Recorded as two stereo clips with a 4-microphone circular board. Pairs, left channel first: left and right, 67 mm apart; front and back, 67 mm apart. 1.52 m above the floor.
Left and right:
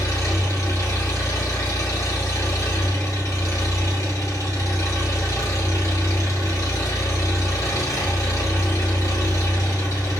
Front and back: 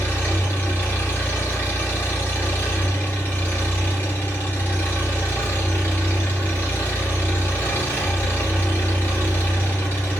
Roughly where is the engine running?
Ahead left.